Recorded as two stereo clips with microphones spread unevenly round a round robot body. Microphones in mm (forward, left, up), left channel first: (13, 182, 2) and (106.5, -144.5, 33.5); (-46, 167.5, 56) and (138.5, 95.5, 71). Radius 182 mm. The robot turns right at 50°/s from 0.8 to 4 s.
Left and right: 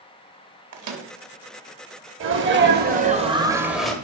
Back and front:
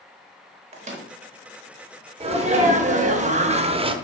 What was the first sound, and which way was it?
A microwave, 70° right.